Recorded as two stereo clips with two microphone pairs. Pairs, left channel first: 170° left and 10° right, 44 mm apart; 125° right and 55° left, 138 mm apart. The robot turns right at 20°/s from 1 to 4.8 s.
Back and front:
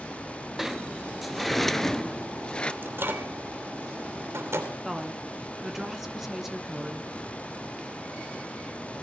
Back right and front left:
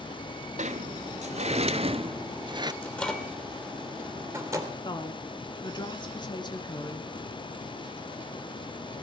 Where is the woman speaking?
90° right, 1.3 m.